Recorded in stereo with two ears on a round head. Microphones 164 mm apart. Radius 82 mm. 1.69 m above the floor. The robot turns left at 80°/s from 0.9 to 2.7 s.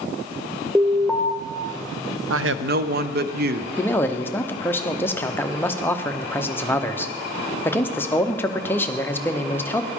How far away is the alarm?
About 1.0 m.